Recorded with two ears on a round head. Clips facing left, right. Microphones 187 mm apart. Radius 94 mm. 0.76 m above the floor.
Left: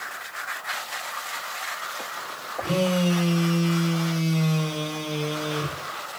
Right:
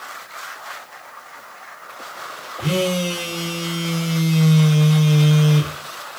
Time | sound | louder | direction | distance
2.6 | a phone buzzing | right 2 dB | 40° right (ahead or behind) | 2 m